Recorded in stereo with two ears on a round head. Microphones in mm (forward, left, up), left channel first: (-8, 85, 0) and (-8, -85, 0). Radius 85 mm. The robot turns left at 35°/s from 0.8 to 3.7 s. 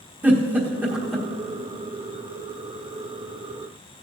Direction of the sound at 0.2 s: 10° right (ahead or behind).